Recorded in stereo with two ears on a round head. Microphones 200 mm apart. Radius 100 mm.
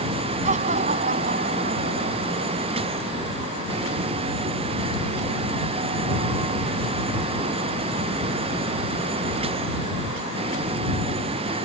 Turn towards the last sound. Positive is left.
turn(degrees=-45)  # may be behind; listen again after turning